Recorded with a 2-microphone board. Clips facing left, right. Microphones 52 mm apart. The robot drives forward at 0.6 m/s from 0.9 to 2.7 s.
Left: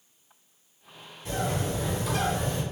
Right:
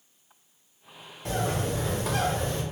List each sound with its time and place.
1.2 s a bird: 70° right (ahead or behind), 1.6 m; by 2.6 s 55° right (ahead or behind), 1.8 m